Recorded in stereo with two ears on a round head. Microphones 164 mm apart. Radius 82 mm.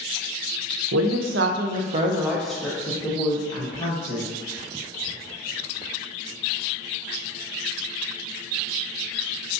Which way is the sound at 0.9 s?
85° right.